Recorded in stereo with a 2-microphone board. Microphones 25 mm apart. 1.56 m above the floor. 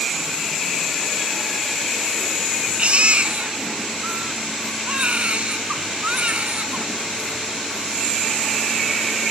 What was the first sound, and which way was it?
A baby crying, 45° right (ahead or behind).